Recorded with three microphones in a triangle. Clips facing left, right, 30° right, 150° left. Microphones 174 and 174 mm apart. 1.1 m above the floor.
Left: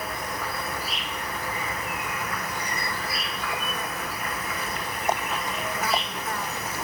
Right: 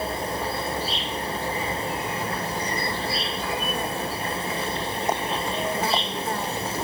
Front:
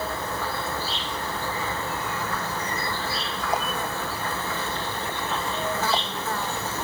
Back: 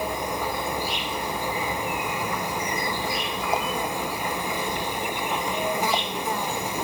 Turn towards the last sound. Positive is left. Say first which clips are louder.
# right 5 dB, back 2 dB
turn(degrees=-140)